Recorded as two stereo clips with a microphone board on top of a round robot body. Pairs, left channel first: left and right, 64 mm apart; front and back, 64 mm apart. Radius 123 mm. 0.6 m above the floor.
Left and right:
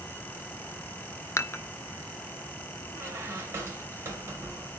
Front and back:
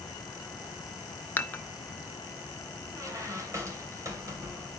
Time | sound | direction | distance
1.4 | dishes clattering | 55° left | 0.8 m
2.9 | a squeak | 145° right | 3 m